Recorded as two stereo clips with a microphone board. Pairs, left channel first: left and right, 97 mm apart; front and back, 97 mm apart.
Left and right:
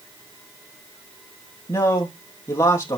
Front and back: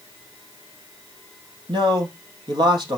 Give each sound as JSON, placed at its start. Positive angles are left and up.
{"t": 1.7, "sound": "a man speaking", "azimuth_deg": 150, "distance_m": 4.5}